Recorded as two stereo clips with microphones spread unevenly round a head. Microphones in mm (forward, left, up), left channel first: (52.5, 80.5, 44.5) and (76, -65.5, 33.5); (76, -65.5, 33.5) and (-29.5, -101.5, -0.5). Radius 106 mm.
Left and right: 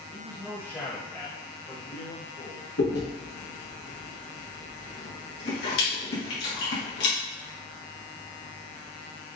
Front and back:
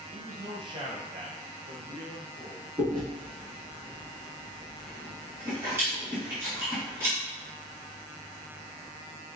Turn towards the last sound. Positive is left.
turn(degrees=120)